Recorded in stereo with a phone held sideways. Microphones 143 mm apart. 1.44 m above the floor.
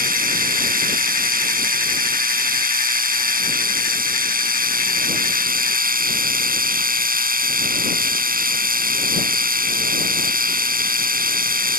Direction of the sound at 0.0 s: 85° right.